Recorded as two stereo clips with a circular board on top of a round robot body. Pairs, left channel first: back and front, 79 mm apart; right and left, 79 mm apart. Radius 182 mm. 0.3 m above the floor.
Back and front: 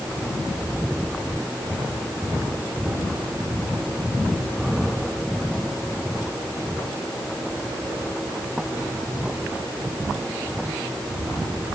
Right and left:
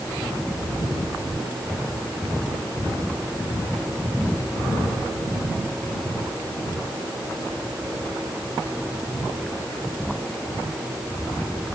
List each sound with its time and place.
Only background noise.